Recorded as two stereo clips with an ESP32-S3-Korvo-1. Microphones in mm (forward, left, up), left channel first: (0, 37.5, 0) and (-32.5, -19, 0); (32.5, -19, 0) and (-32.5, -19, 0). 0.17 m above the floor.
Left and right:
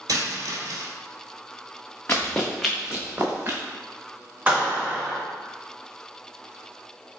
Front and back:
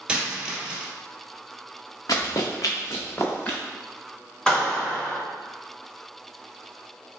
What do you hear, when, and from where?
0.1 s a dropped coin: 105° right, 1.0 m
2.1 s running footsteps: straight ahead, 0.9 m; by 3.6 s 70° right, 1.3 m
4.5 s a clap: 65° right, 1.7 m